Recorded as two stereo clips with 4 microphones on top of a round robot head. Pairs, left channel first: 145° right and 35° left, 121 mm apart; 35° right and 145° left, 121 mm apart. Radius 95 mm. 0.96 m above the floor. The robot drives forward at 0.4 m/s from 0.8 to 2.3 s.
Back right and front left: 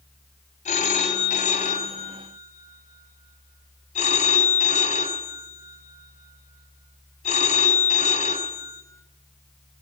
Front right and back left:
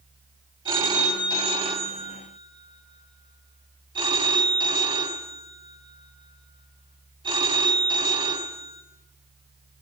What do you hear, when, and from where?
0.7 s a phone ringing: 165° right, 2.5 m; by 8.8 s 170° right, 3 m